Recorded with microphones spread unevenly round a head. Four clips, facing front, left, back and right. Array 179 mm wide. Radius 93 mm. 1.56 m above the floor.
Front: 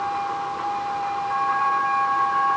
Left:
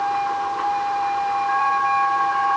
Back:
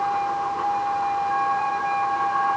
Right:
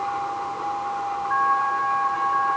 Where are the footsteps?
No footsteps in this recording.